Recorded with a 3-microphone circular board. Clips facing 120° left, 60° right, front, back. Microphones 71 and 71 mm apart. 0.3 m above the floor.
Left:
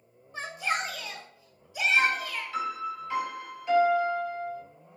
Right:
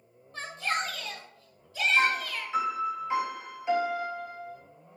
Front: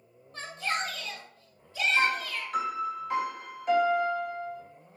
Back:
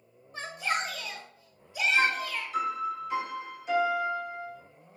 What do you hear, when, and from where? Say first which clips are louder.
0.3 s a shout: left 1 dB, back 1 dB; 150° left, 0.9 m
2.0 s a piano: right 1 dB, even; 5° left, 1.0 m